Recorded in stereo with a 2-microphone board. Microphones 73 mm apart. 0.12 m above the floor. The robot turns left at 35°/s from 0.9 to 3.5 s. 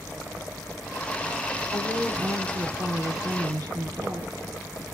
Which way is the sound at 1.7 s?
20° right.